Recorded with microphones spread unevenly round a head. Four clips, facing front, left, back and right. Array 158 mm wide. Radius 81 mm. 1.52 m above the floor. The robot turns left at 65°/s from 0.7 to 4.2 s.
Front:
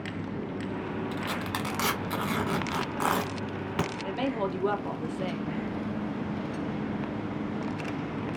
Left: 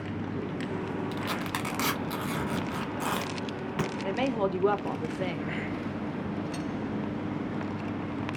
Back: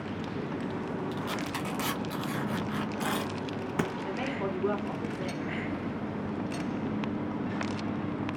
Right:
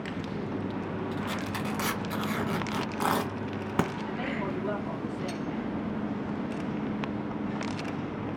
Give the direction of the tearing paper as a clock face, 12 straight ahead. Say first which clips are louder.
Even, front 1 dB; 9 o'clock.